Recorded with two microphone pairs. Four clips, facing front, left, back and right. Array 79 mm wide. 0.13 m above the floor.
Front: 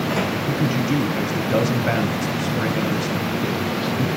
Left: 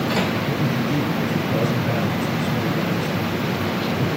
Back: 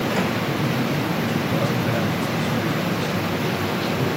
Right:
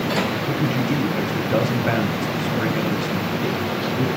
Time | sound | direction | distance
0.5 | a man speaking | 50° right | 3 m